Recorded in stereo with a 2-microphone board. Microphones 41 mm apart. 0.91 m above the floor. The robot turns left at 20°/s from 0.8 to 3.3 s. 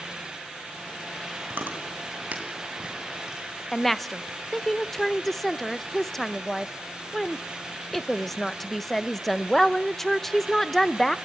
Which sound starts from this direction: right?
Chewing, at 1.5 s.